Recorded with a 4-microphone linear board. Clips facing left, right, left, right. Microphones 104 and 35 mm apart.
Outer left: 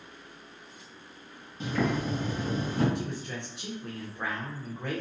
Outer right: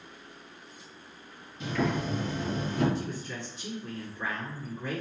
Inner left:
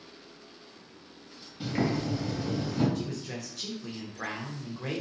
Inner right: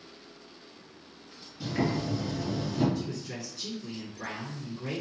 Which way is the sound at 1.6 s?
40° left (ahead or behind).